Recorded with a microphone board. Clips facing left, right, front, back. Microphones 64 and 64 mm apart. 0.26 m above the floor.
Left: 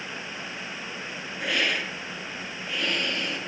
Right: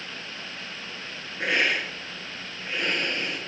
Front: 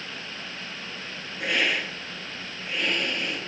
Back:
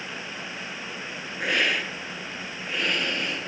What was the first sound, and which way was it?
A hiss, 150° right.